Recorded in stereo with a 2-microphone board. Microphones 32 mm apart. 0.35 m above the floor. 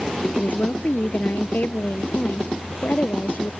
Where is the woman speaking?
75° left (ahead or behind).